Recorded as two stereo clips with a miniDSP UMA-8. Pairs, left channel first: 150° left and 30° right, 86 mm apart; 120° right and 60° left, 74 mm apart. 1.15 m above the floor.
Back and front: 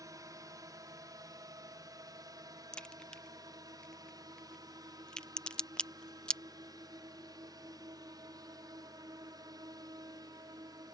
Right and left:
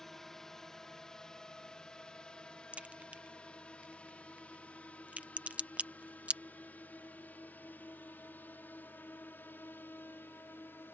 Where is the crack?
90° left.